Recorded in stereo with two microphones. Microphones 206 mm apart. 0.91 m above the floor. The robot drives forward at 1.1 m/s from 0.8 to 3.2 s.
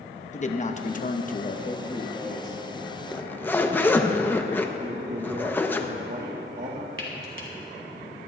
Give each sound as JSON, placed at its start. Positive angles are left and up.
{"t": 0.3, "sound": "a man speaking", "side_deg": 35, "distance_m": 0.8}
{"t": 3.1, "sound": "a zipper", "side_deg": 10, "distance_m": 0.5}
{"t": 4.8, "sound": "a man speaking", "side_deg": -50, "distance_m": 1.1}
{"t": 7.0, "sound": "frying", "side_deg": -70, "distance_m": 2.0}